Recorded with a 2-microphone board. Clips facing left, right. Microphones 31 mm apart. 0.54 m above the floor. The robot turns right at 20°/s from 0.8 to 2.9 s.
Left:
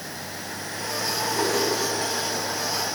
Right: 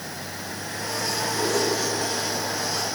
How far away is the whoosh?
About 4.5 m.